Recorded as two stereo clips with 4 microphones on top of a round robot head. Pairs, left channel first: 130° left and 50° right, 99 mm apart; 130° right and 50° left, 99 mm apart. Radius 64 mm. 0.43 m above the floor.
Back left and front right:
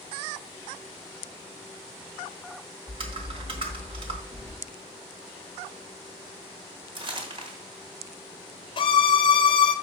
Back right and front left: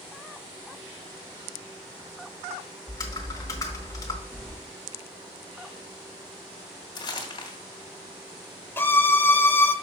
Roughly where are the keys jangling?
Ahead right.